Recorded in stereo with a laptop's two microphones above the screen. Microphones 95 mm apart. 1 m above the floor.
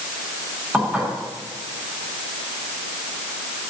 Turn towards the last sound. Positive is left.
turn(degrees=-15)  # may be behind; listen again after turning